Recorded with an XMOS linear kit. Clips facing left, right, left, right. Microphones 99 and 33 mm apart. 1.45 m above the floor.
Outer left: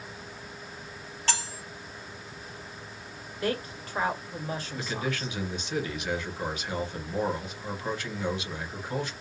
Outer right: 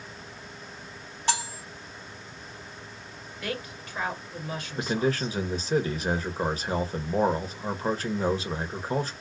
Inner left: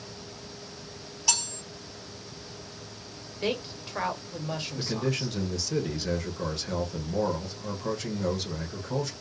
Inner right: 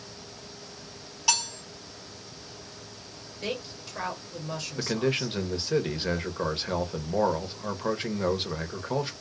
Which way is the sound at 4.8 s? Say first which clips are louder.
Outer right 9 dB, inner right 4 dB; 35° right (ahead or behind).